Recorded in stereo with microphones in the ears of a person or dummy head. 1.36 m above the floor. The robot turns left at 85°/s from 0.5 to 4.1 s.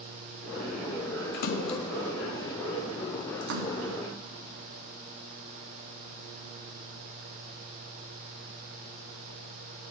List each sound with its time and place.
1.3 s a splash: 55° left (ahead or behind), 0.6 m; by 3.9 s 35° right (ahead or behind), 0.6 m